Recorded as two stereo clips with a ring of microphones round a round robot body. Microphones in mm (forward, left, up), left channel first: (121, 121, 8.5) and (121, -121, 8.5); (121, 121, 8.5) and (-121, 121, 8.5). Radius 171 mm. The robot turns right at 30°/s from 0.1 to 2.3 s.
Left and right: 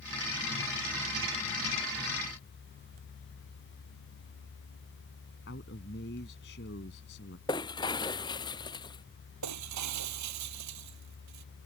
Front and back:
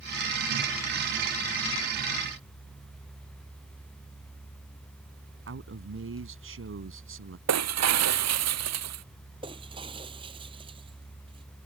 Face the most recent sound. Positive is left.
turn(degrees=-105)